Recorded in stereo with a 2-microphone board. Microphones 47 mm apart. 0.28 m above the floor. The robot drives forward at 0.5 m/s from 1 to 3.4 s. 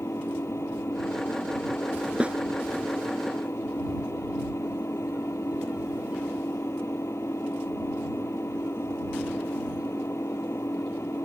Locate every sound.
0.0 s an engine running: 80° left
2.2 s a snare drum: 25° right (ahead or behind)